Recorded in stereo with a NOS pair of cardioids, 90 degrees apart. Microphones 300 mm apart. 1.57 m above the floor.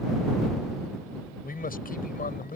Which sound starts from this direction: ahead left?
A man speaking, at 1.4 s.